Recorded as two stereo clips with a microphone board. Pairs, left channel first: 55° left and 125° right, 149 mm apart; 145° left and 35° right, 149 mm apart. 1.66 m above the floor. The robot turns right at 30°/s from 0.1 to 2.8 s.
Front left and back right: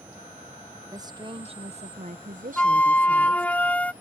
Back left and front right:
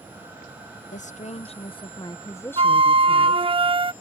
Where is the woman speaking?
170° left; by 3.6 s 135° right.